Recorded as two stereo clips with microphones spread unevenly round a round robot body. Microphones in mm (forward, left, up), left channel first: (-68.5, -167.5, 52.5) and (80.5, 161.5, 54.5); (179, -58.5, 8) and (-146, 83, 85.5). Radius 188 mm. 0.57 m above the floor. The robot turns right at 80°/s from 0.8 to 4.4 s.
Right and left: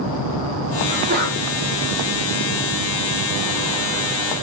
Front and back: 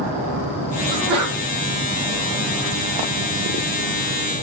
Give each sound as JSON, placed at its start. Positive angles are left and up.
{"t": 0.9, "sound": "a sneeze", "azimuth_deg": 95, "distance_m": 1.6}